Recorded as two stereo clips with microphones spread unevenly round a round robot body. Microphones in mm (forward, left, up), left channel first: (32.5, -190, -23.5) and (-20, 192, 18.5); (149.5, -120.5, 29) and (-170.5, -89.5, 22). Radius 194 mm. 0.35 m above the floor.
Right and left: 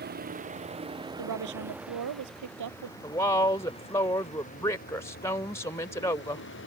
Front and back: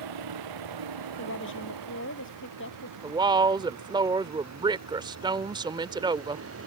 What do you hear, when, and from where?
0.0 s a vehicle: 165° left; by 6.7 s 140° right
1.2 s a woman speaking: 55° left
3.0 s a woman speaking: 135° right